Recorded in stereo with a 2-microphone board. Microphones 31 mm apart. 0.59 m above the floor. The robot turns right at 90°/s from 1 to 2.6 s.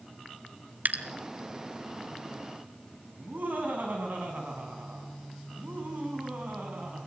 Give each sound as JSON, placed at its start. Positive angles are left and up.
{"t": 0.8, "sound": "dripping", "side_deg": -65, "distance_m": 1.3}
{"t": 3.2, "sound": "laughter", "side_deg": -70, "distance_m": 6.5}